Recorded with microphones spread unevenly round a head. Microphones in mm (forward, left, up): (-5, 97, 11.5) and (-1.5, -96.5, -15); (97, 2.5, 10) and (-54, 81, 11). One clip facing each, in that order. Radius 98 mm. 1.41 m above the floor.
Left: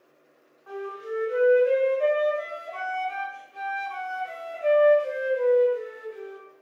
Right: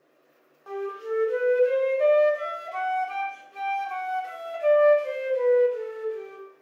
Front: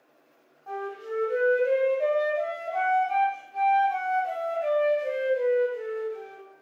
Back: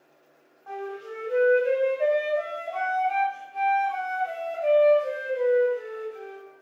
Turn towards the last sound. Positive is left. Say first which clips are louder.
# right 3 dB, front 1 dB
turn(degrees=-120)